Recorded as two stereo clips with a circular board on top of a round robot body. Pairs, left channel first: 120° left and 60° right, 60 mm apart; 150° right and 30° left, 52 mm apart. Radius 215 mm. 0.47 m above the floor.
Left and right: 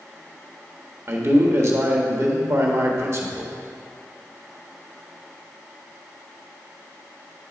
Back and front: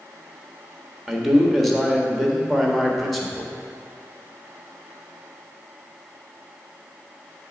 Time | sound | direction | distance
1.1 | a man speaking | 60° right | 1.7 m